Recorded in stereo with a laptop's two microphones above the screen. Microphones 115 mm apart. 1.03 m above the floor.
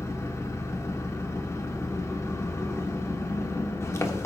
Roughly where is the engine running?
Left.